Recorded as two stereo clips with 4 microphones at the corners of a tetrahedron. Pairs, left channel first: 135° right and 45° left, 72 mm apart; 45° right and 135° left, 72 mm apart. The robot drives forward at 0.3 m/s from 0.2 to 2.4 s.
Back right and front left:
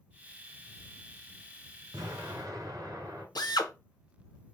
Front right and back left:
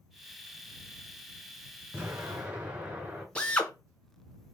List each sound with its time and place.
1.9 s an explosion: 70° left, 1.9 m; by 3.2 s 75° left, 1.9 m
3.4 s a drill: 120° right, 0.7 m